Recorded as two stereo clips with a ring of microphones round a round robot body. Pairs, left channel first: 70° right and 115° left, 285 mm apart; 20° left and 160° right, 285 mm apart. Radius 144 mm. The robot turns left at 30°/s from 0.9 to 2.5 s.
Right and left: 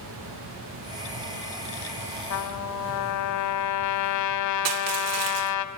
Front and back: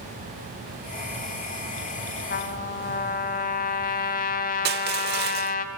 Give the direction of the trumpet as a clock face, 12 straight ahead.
1 o'clock.